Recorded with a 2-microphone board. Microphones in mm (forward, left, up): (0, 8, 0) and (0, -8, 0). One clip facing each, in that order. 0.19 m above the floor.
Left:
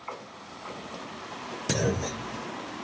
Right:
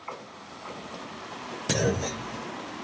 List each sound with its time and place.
1.7 s a clunk: 10° right (ahead or behind)